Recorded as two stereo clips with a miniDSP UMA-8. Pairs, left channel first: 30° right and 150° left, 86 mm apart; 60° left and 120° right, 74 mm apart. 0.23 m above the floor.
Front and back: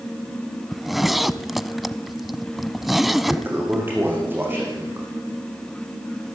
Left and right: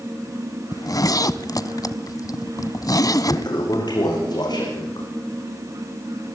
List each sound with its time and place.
0.7 s a zipper: 60° left, 1.0 m
3.3 s a toilet flushing: 85° left, 7 m